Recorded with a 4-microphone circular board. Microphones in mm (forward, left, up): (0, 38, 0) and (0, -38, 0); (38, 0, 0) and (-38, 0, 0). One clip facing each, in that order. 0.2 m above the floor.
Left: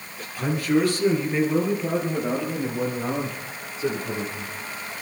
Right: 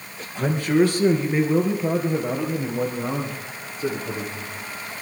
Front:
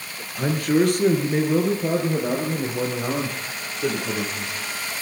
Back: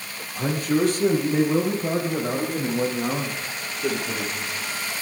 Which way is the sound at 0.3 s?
30° right.